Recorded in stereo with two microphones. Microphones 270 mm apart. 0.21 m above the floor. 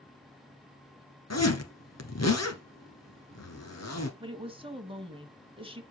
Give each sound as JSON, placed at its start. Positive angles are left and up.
{"t": 1.3, "sound": "a zipper", "side_deg": 70, "distance_m": 1.5}
{"t": 4.2, "sound": "a woman speaking", "side_deg": -20, "distance_m": 1.2}